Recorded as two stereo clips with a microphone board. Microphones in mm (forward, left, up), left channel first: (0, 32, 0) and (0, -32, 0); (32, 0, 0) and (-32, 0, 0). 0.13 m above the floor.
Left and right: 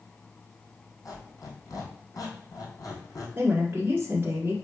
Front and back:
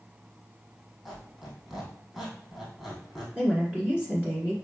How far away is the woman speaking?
About 1.6 m.